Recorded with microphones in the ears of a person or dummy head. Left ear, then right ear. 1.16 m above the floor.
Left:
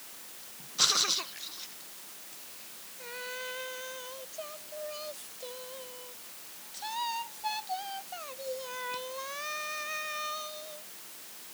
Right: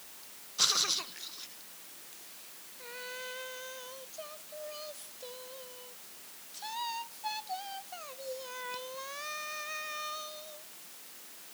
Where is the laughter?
No laughter in this recording.